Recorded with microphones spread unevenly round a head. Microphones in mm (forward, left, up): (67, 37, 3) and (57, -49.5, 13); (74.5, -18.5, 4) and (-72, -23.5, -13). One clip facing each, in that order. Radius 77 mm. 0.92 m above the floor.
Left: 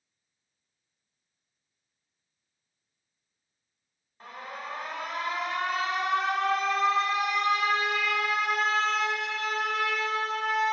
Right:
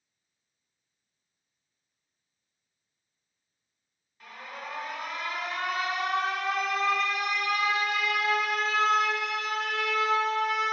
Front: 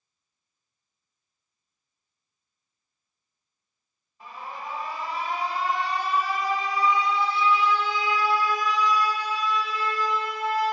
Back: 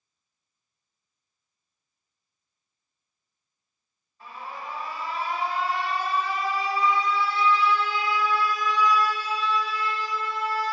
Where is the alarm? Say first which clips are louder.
Left 2 dB, even; 75° left, 1.3 m.